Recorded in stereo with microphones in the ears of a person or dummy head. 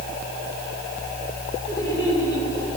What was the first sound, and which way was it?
Laughter, 15° left (ahead or behind).